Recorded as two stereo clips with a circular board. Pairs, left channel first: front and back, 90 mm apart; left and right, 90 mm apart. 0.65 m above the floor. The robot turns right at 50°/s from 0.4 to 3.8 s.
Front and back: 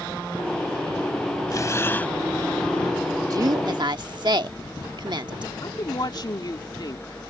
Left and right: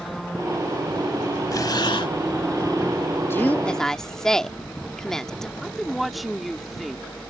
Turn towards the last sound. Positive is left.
turn(degrees=0)